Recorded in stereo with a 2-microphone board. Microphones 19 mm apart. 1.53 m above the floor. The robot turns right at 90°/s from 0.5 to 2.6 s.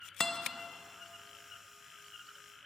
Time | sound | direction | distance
0.2 | a guitar | 25° left (ahead or behind) | 0.6 m